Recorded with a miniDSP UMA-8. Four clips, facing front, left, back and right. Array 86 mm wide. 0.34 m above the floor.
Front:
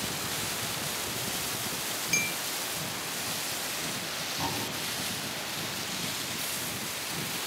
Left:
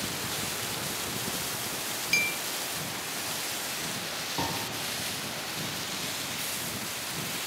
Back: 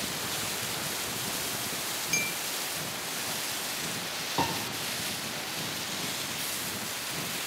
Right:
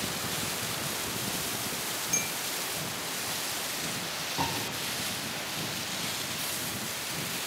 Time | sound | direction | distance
2.1 | a clink | 80° left | 0.6 m
4.4 | a piano | 170° left | 7 m